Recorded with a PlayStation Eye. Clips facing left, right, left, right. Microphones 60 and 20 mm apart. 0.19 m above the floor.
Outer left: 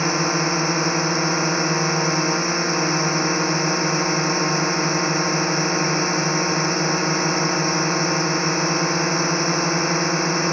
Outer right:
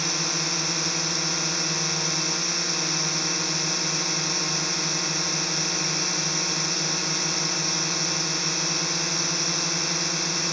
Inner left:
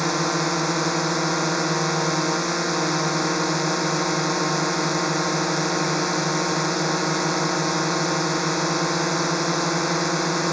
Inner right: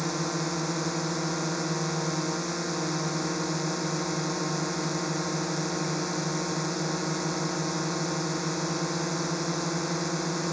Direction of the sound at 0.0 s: 35° left (ahead or behind).